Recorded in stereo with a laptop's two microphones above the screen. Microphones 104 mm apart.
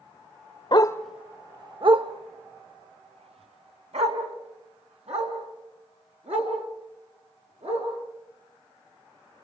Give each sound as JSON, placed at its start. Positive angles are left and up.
{"t": 0.7, "sound": "a dog barking", "side_deg": 45, "distance_m": 0.6}